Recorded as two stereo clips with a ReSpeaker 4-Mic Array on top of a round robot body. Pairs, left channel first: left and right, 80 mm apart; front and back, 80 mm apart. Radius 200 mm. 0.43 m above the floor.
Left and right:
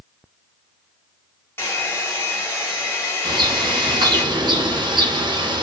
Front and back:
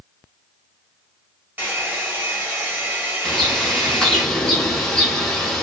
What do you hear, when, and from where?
1.6 s a hair dryer: 130° left, 1.4 m
3.2 s a bird: 85° right, 0.9 m